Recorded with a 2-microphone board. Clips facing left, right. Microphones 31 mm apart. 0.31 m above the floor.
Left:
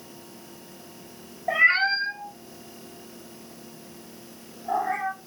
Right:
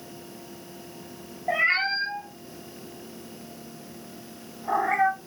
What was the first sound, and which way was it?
A cat meowing, 10° left (ahead or behind).